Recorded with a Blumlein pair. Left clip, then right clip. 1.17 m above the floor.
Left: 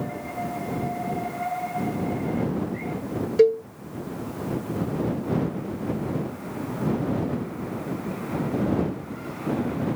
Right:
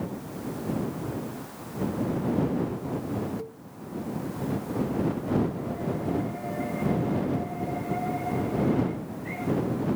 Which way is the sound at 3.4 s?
40° left.